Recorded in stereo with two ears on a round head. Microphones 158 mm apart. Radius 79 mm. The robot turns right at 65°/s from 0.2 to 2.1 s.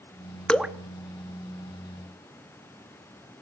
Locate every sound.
0.5 s dripping: 5° left (ahead or behind), 0.6 m; by 0.7 s 10° right (ahead or behind), 0.6 m